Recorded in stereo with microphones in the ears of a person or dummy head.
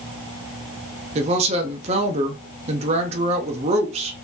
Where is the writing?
I don't hear writing.